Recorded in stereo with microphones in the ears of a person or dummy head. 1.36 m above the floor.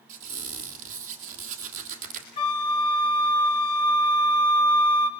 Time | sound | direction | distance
0.1 | a squeak | 45° right (ahead or behind) | 3 m
2.4 | a flute | 30° left (ahead or behind) | 1.1 m